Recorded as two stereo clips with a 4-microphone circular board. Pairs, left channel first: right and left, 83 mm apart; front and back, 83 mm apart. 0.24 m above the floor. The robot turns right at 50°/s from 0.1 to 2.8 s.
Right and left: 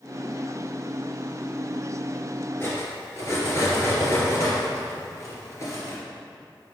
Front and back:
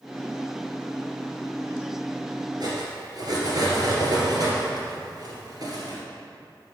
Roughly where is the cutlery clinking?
Behind right.